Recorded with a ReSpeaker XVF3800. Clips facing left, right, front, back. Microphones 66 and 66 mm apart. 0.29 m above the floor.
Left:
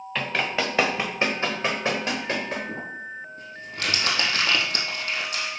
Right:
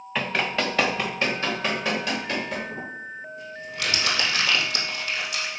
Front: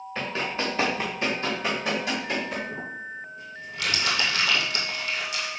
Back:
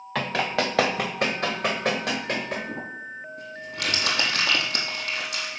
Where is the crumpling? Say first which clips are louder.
Left 1 dB, even; 140° left, 2 m.